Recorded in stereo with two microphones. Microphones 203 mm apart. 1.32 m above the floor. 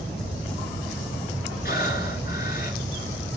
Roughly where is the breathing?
Left.